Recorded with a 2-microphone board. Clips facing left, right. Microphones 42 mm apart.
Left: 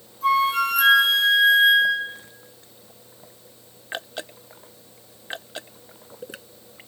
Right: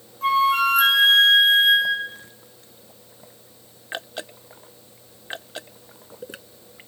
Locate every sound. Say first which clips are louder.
0.2 s a flute: right 1 dB; 50° right (ahead or behind), 0.7 m